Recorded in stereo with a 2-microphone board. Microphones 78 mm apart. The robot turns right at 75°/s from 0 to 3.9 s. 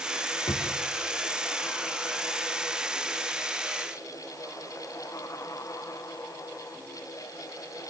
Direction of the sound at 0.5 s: 80° left.